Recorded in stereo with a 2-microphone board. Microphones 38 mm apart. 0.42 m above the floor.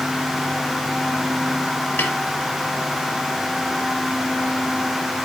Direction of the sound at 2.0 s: 55° left (ahead or behind).